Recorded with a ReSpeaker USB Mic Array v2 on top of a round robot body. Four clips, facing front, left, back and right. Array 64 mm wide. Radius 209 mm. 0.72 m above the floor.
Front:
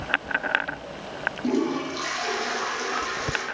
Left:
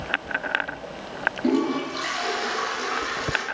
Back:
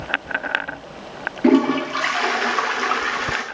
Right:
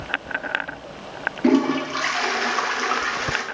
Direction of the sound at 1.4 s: 160° right.